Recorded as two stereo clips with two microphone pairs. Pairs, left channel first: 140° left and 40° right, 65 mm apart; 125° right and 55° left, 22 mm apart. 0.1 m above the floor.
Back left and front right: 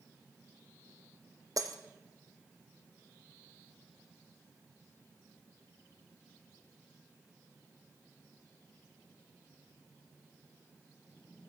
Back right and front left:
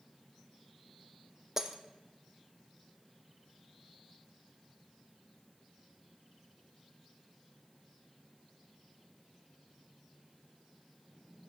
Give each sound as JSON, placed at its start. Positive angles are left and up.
{"t": 1.6, "sound": "breaking glass", "azimuth_deg": -15, "distance_m": 1.5}